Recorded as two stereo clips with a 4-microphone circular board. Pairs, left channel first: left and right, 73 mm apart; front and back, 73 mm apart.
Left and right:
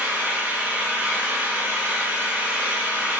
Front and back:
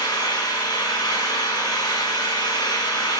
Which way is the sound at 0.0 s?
20° right.